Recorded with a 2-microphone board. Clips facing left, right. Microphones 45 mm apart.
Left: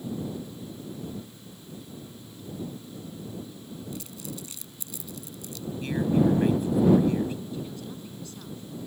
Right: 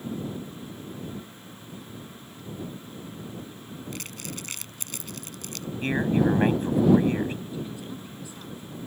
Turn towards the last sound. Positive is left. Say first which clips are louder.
# right 1 dB
turn(degrees=-20)  # may be behind; listen again after turning